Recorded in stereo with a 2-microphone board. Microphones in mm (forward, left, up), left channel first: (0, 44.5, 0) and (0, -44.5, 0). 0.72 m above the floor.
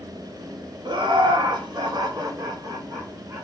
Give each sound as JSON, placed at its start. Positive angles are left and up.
{"t": 0.8, "sound": "laughter", "side_deg": -55, "distance_m": 1.8}